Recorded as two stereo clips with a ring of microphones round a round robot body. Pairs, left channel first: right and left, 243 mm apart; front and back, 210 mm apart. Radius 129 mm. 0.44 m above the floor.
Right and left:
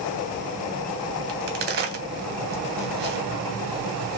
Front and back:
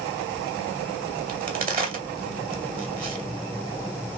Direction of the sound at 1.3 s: 135° left.